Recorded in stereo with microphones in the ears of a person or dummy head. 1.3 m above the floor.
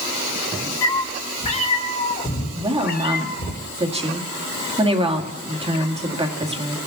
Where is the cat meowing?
15° left (ahead or behind), 1.4 m; by 3.5 s 60° left (ahead or behind), 2.5 m.